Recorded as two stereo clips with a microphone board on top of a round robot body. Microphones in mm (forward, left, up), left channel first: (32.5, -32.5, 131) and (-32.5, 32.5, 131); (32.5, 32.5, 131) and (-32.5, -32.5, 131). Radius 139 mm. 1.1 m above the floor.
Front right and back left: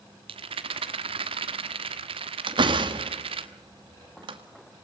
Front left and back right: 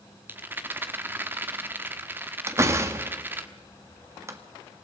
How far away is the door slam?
About 1.9 m.